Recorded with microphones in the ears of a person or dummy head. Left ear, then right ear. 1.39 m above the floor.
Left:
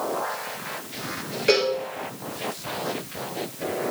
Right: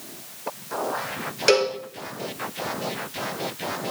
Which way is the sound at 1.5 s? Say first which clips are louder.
Right 1 dB; 45° right (ahead or behind).